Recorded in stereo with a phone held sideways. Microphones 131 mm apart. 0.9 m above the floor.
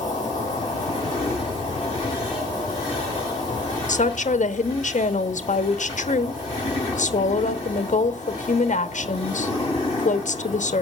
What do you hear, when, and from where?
0.0 s an insect: 30° left (ahead or behind), 8.5 m
3.9 s a woman speaking: 70° left (ahead or behind), 1.0 m